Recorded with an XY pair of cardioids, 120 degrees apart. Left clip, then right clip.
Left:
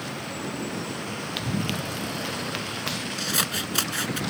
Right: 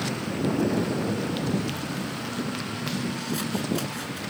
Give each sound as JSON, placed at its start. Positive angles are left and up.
{"t": 1.4, "sound": "running footsteps", "azimuth_deg": 40}
{"t": 3.2, "sound": "scissors", "azimuth_deg": 60}